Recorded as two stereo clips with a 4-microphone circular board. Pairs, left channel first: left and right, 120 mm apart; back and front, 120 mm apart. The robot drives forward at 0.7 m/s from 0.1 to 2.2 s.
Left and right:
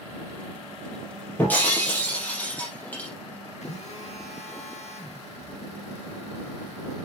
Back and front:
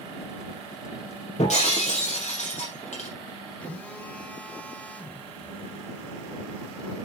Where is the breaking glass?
165° left, 4 m; by 3.1 s 170° left, 5 m.